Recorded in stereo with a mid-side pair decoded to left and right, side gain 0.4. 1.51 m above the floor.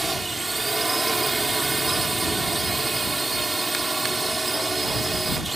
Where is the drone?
20° right.